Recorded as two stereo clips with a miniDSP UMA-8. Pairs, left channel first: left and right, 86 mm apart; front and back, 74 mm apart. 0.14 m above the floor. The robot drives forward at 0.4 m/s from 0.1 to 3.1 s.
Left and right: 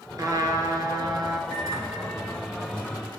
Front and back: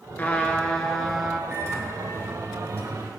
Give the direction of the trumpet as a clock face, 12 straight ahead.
2 o'clock.